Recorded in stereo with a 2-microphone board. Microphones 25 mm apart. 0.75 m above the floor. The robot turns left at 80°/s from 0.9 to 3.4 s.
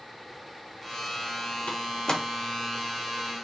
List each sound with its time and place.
1.7 s a door slam: 45° left (ahead or behind), 0.7 m; by 2.2 s 10° left (ahead or behind), 0.7 m